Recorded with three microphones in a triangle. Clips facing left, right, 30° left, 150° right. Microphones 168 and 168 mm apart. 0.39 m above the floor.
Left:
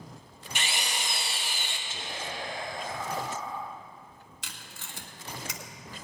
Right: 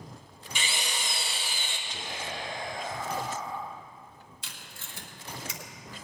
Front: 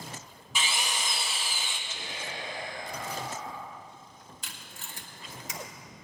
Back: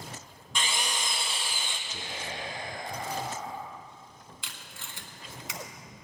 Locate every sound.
0.6 s a drill: 115° left, 1.5 m
1.9 s whispering: 175° left, 2.5 m
4.4 s tape being pulled: 75° left, 1.2 m